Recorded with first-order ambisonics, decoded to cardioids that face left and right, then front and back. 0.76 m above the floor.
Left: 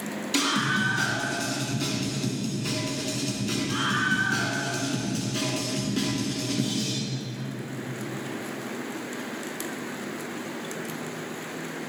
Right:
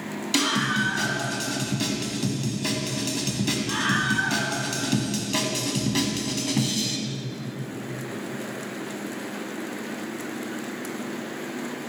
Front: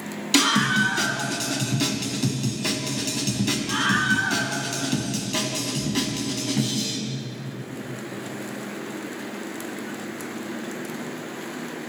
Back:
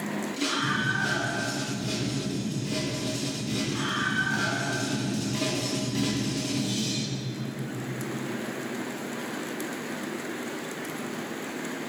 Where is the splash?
I don't hear a splash.